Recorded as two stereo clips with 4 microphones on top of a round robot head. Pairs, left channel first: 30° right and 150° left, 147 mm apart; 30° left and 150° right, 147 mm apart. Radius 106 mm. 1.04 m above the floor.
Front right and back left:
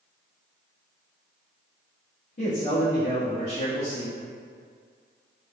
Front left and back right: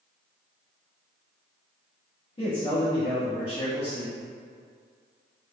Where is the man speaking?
15° right, 1.2 m.